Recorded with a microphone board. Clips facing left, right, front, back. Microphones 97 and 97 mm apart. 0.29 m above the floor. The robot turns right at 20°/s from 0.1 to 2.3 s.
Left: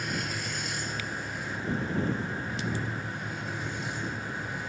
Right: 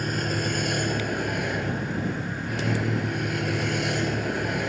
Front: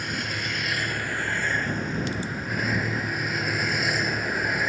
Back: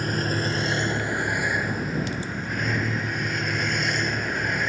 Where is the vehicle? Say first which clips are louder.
Right 7 dB, back 5 dB; 130° right; by 4.7 s 85° right.